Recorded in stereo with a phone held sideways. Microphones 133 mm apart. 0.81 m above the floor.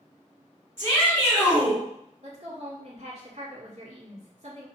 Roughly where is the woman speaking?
Right.